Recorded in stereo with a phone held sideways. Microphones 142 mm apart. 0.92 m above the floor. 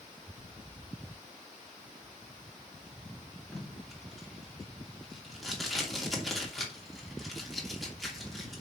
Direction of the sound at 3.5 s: Centre (ahead or behind).